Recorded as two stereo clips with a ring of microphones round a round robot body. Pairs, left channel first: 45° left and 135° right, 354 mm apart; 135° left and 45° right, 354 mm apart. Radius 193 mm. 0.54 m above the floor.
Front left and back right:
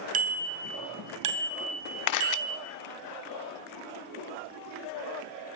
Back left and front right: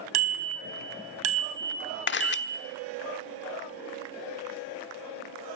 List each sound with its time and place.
0.1 s a bicycle bell: 65° right, 3.5 m; by 2.6 s 130° right, 4 m
2.1 s a camera shutter: 75° left, 1.0 m